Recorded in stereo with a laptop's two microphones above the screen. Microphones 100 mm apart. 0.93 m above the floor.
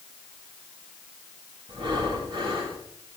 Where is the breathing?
65° right (ahead or behind), 3.5 m.